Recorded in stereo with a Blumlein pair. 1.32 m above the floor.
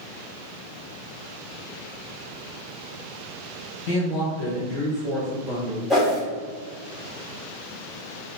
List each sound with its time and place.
3.9 s a woman speaking: 40° left, 1.3 m; by 5.8 s 15° right, 0.8 m
5.9 s a whoosh: straight ahead, 1.1 m